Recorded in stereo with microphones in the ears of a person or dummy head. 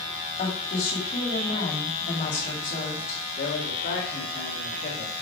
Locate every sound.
0.4 s a woman speaking: 40° left (ahead or behind), 2.5 m
3.4 s a man speaking: 45° left (ahead or behind), 2.5 m